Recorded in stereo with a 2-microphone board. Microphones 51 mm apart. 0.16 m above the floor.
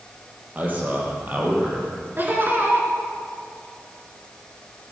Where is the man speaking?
35° right (ahead or behind), 4.5 m.